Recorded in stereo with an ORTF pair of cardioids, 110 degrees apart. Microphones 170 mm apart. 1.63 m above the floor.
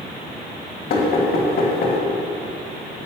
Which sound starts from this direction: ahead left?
Knocking, at 0.9 s.